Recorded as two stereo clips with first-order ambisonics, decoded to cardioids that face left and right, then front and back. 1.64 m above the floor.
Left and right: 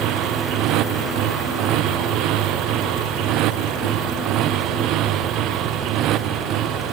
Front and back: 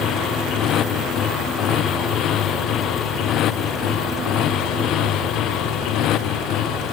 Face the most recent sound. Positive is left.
turn(degrees=-45)